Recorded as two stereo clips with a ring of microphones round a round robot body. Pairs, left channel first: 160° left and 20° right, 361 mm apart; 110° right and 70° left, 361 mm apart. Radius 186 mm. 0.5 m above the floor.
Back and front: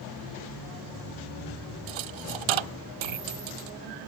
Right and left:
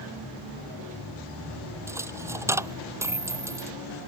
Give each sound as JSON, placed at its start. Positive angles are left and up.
{"t": 1.9, "sound": "a dropped coin", "azimuth_deg": -15}